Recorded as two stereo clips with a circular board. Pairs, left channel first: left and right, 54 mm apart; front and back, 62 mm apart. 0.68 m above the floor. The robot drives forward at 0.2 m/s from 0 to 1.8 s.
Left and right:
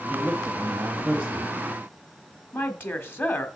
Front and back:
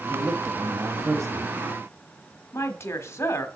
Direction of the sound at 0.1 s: 150° right.